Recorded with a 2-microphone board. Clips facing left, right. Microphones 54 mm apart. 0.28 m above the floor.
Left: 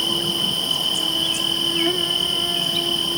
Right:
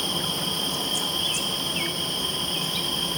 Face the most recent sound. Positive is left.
turn(degrees=70)  # may be behind; listen again after turning